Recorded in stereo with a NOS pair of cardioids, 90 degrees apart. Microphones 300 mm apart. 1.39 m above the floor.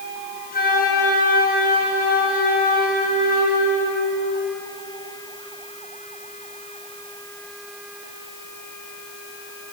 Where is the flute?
30° left, 7.5 m.